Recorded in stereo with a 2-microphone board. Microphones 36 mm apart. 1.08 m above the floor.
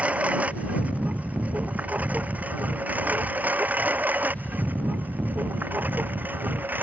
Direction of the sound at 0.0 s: 40° right (ahead or behind).